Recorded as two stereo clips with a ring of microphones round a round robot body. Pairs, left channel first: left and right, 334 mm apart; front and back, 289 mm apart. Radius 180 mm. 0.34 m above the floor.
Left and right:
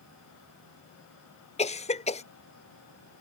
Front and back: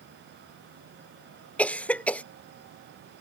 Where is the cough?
75° left.